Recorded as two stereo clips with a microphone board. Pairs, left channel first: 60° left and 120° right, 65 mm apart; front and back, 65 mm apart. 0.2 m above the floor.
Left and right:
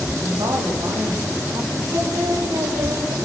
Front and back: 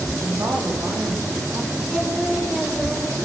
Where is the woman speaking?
135° right, 6.5 m; by 1.7 s 125° right, 6.5 m.